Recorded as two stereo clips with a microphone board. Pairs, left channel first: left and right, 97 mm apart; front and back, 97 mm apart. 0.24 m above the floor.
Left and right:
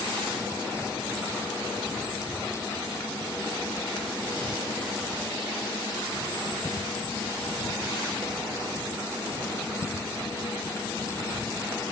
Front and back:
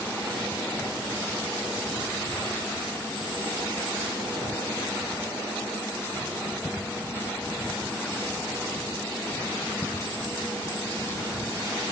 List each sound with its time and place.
Only background noise.